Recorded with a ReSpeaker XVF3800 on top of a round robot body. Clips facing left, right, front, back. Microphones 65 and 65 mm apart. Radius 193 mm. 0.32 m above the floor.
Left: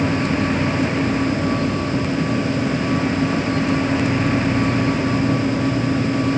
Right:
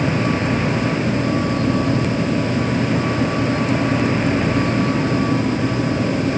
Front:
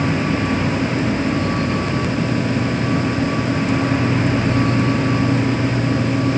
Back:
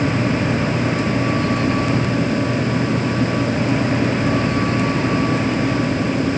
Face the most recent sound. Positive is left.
No sound to turn to.